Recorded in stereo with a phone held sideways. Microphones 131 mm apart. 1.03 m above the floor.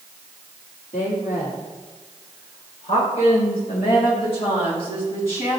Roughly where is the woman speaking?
Left.